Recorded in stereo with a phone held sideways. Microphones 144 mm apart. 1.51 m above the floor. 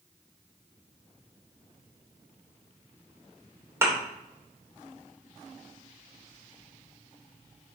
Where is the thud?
20° right (ahead or behind), 2.5 m.